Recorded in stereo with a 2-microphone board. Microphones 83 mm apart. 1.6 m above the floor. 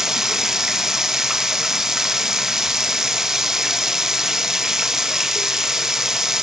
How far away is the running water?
About 0.9 m.